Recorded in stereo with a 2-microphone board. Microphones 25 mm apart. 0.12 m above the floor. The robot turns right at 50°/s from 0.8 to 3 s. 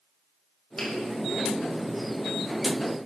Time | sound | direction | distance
0.8 | a finger snap | 50° left (ahead or behind) | 4.5 m